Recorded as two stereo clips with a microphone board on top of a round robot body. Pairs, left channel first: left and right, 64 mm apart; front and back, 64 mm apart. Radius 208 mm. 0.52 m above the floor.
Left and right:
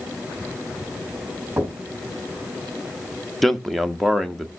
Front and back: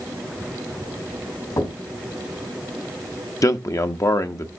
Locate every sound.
1.6 s knocking: 25° right, 3.5 m
3.4 s a man speaking: straight ahead, 1.2 m